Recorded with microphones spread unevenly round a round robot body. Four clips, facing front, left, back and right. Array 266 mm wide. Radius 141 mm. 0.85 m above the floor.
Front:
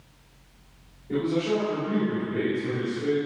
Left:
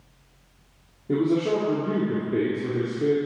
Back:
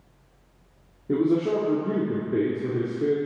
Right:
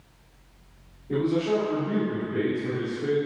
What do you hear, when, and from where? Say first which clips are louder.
1.1 s a man speaking: left 2 dB, back 3 dB; 145° left, 1.8 m